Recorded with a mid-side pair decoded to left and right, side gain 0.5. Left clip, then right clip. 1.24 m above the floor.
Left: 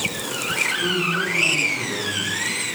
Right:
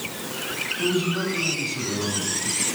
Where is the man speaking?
30° right, 8.5 m.